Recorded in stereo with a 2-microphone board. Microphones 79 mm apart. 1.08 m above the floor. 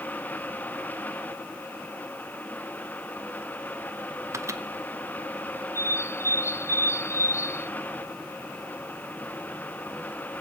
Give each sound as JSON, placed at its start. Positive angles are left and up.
{"t": 4.3, "sound": "a microwave", "side_deg": -40, "distance_m": 0.9}
{"t": 5.8, "sound": "a bird", "side_deg": 35, "distance_m": 0.6}